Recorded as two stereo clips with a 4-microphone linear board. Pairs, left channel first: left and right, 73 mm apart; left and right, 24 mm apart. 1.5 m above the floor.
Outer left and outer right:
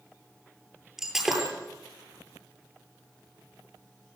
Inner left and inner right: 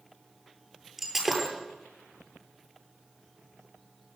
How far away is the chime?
I don't hear a chime.